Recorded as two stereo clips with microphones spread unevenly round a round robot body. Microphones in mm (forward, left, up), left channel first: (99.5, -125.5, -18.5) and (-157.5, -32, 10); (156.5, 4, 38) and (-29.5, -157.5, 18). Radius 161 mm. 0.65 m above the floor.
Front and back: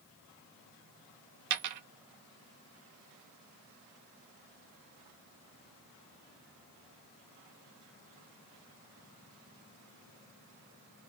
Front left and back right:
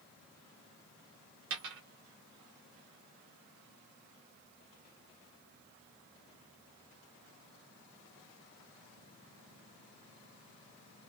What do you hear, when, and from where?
1.5 s a dropped coin: 170° left, 0.6 m